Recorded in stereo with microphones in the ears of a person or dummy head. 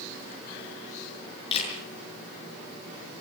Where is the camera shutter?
35° left (ahead or behind), 7 m.